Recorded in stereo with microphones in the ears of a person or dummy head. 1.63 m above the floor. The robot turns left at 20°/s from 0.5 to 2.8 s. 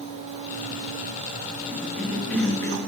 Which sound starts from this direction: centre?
A cough, at 1.7 s.